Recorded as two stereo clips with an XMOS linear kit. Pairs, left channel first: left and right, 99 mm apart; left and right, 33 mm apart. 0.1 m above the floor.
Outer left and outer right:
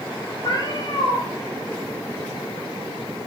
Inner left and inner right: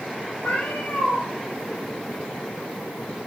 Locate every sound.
0.4 s a cat meowing: 45° left (ahead or behind), 1.5 m